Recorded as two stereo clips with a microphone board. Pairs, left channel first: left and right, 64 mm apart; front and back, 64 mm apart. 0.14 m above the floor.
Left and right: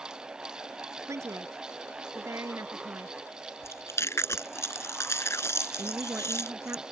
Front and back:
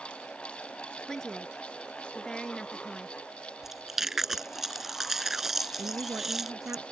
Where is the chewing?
95° left.